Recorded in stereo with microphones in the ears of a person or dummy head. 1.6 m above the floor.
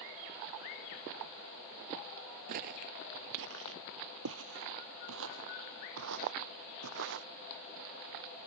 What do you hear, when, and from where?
2.5 s footsteps: 40° right (ahead or behind); by 7.3 s 60° right (ahead or behind)